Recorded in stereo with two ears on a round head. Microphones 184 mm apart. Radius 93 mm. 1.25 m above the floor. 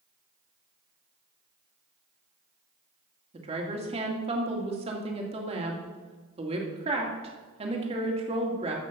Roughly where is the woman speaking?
Right.